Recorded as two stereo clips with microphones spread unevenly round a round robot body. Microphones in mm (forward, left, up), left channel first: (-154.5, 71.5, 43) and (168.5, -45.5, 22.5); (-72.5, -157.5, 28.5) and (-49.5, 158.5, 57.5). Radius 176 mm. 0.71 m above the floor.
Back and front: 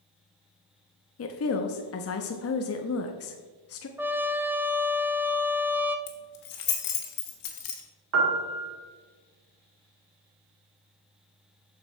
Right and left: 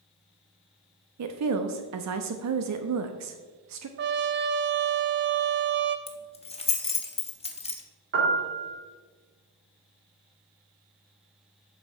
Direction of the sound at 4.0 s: 55° left.